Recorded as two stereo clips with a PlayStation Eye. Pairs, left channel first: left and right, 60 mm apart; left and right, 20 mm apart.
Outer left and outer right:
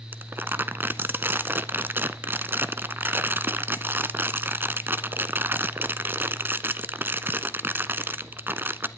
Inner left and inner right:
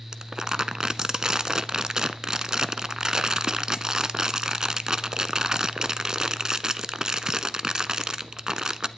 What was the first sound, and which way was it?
Crumpling, 35° right (ahead or behind).